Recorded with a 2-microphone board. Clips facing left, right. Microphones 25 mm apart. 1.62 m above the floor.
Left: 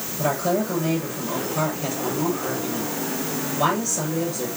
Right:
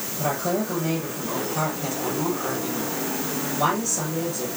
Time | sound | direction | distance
0.2 | a woman speaking | 5° left (ahead or behind) | 9 m